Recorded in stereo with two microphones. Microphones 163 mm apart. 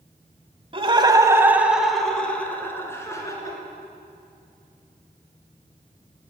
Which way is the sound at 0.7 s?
35° right (ahead or behind).